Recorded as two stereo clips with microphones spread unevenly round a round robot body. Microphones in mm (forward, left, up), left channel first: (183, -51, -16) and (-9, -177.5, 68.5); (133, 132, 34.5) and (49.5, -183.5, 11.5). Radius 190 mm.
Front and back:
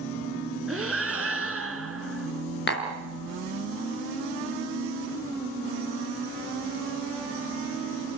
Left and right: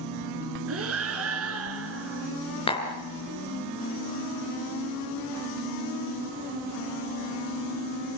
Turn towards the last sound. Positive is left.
turn(degrees=0)